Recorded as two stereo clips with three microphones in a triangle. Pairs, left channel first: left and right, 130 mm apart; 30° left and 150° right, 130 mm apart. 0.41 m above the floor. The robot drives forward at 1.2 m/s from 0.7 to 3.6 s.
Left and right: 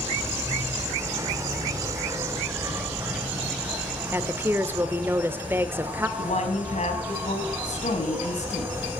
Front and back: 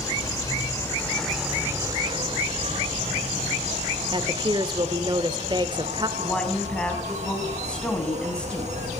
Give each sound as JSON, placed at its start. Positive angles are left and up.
{"t": 0.0, "sound": "an insect", "azimuth_deg": -25, "distance_m": 1.6}
{"t": 4.1, "sound": "a woman speaking", "azimuth_deg": -150, "distance_m": 0.9}
{"t": 6.2, "sound": "a woman speaking", "azimuth_deg": 110, "distance_m": 2.5}